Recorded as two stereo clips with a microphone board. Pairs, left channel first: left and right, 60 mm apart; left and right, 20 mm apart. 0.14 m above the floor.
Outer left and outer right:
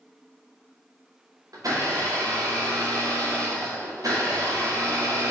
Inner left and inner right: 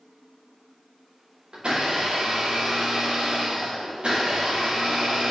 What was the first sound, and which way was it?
A blender, 75° right (ahead or behind).